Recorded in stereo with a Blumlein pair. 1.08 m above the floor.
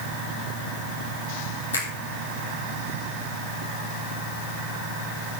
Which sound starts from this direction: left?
A finger snap, at 1.7 s.